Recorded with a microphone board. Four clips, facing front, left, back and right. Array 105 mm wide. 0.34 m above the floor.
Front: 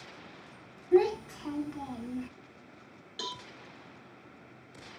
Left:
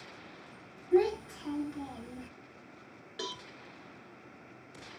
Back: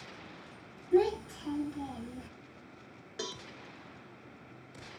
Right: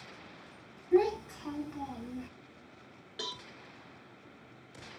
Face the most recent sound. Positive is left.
turn(degrees=165)